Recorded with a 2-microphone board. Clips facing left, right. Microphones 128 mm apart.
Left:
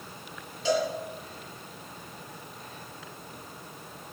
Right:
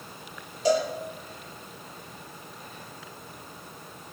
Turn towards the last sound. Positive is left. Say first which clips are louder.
# right 3 dB
turn(degrees=-40)  # may be behind; listen again after turning